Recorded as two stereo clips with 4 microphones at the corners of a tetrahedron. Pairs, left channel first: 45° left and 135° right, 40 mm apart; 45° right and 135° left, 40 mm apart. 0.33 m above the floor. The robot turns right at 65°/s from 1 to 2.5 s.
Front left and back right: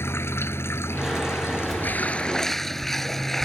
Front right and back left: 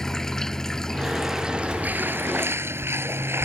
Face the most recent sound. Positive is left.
turn(degrees=130)